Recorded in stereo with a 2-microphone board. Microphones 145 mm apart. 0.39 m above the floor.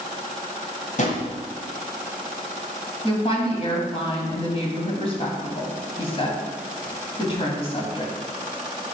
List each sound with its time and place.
1.0 s a drawer: 55° left (ahead or behind), 1.6 m
3.0 s a woman speaking: 40° left (ahead or behind), 2 m